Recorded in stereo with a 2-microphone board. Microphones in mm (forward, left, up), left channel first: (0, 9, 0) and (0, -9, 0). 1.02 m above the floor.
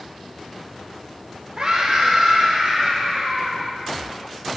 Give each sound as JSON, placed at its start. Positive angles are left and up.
{"t": 1.6, "sound": "a scream", "side_deg": -45, "distance_m": 3.5}